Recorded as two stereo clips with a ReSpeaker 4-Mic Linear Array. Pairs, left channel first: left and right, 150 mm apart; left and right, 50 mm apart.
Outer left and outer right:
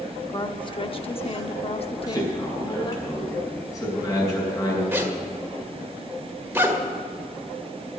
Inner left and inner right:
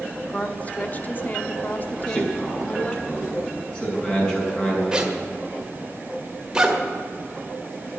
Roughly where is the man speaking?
Left.